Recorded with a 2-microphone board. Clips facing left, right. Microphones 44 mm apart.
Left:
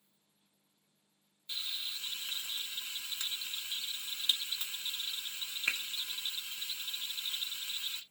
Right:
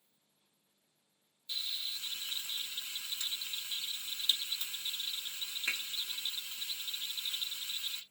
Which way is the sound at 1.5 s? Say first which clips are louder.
Even; 35° left (ahead or behind).